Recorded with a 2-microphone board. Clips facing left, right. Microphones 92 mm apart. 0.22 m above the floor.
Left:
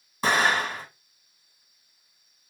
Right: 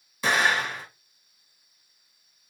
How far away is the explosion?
About 2 m.